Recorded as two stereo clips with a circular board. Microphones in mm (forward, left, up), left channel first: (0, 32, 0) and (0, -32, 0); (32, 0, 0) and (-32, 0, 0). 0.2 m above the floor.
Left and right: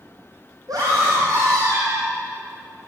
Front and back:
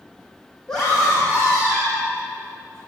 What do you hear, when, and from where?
0.7 s a scream: 75° right, 7.5 m